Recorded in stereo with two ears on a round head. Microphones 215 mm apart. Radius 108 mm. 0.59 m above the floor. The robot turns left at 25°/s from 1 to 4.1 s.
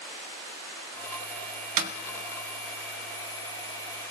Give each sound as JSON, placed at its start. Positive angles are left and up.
{"t": 1.8, "sound": "a snare drum", "side_deg": -80, "distance_m": 0.8}